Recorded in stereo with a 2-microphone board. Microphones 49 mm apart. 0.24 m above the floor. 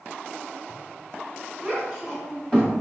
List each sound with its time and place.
1.6 s a child speaking: 5° left (ahead or behind), 1.3 m; by 2.8 s 30° left (ahead or behind), 1.3 m